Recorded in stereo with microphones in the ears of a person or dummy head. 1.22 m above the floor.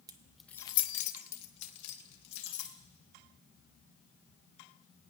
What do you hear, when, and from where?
0.1 s keys jangling: 25° right (ahead or behind), 0.8 m; by 2.8 s 80° left, 2.5 m